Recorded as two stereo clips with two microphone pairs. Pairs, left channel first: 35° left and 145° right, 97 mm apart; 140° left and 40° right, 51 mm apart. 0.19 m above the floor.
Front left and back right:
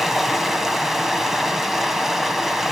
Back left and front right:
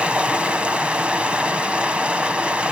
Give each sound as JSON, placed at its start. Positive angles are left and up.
{"t": 0.0, "sound": "running water", "azimuth_deg": -60, "distance_m": 1.3}